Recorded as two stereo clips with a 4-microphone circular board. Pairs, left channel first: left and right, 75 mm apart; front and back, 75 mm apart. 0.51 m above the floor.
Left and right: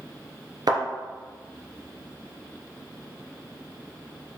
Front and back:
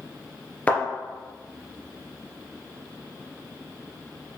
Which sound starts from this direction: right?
A thud, at 0.7 s.